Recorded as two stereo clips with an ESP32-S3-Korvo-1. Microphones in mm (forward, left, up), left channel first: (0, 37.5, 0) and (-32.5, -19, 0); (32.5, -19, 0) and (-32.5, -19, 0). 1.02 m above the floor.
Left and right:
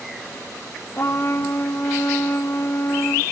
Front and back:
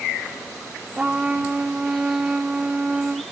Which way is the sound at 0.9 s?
110° left.